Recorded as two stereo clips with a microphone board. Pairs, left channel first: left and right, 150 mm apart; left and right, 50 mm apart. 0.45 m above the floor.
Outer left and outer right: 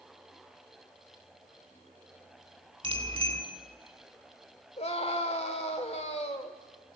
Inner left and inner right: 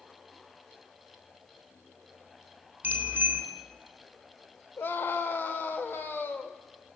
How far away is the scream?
About 1.6 m.